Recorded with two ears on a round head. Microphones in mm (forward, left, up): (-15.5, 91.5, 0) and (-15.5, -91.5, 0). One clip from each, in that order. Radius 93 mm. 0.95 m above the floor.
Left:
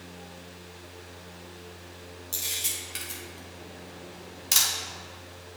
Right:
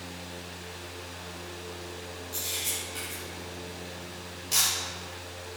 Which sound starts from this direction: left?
A camera shutter, at 2.3 s.